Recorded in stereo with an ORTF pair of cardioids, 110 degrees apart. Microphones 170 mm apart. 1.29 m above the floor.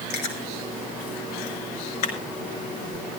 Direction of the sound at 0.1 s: 70° left.